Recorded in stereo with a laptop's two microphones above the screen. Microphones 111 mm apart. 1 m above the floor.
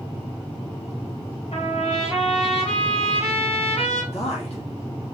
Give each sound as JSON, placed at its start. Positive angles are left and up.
{"t": 1.5, "sound": "a trumpet", "side_deg": 75, "distance_m": 2.5}
{"t": 4.1, "sound": "a man speaking", "side_deg": 75, "distance_m": 2.0}